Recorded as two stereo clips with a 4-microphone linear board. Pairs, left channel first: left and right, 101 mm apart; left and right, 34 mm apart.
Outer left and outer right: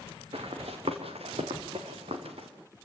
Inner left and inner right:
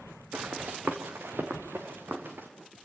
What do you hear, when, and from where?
0.3 s running footsteps: 75° right (ahead or behind), 2 m; by 2.5 s 85° right, 3.5 m